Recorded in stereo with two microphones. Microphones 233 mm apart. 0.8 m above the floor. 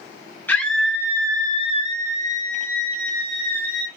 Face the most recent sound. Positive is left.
turn(degrees=-40)  # may be behind; listen again after turning